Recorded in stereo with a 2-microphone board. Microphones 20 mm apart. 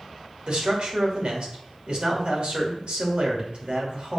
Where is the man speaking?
55° right (ahead or behind), 2.5 m.